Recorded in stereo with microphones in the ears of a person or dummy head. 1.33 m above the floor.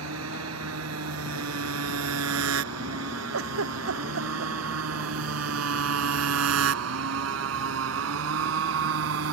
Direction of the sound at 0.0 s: 85° right.